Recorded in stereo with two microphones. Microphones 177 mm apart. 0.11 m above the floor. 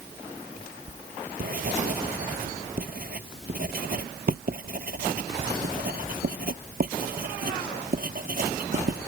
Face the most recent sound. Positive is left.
turn(degrees=-60)  # may be behind; listen again after turning